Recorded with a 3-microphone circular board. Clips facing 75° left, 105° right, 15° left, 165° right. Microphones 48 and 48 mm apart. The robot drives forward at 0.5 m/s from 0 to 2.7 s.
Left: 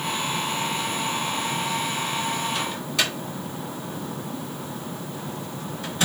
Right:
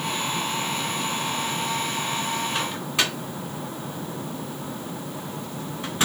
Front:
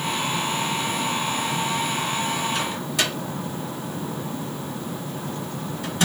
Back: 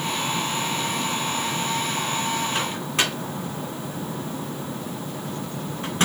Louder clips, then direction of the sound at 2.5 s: Right 1 dB, even; 155° right.